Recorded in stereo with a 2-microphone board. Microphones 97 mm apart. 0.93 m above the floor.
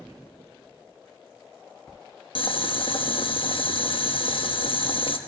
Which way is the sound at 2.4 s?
60° left (ahead or behind).